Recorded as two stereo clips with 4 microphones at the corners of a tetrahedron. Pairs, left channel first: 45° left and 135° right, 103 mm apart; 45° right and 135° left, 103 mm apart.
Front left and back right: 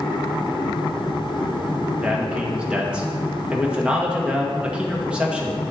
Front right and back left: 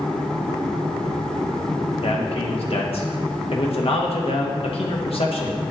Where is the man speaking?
55° right, 1.7 m.